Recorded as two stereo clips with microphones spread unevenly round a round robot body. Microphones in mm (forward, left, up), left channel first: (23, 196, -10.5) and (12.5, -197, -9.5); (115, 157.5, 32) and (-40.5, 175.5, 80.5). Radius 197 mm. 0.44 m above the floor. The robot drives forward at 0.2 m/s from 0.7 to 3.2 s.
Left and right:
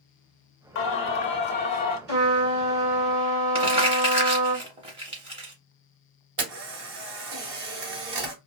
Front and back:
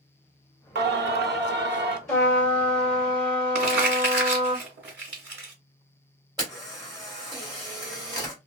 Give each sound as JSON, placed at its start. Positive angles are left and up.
{"t": 0.8, "sound": "singing", "azimuth_deg": 145, "distance_m": 0.5}
{"t": 2.1, "sound": "a trumpet", "azimuth_deg": -75, "distance_m": 1.8}
{"t": 3.5, "sound": "crumpling", "azimuth_deg": -170, "distance_m": 0.5}
{"t": 6.4, "sound": "a camera shutter", "azimuth_deg": -105, "distance_m": 1.3}